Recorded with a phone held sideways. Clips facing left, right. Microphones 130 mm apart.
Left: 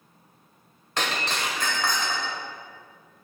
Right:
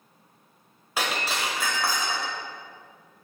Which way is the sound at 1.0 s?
10° right (ahead or behind).